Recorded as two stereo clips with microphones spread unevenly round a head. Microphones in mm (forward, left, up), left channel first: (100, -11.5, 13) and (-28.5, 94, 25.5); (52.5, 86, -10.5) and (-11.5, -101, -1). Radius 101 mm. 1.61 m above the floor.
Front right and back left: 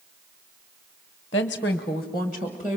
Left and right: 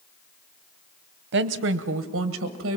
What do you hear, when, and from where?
1.3 s a woman speaking: 100° right, 0.8 m; by 2.8 s 140° right, 1.7 m